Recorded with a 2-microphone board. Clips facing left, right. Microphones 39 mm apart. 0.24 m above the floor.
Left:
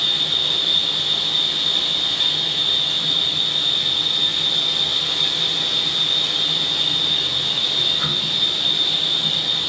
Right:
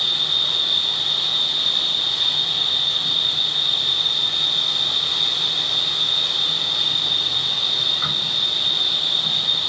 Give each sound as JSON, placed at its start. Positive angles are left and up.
{"t": 0.0, "sound": "an insect", "side_deg": 85, "distance_m": 1.0}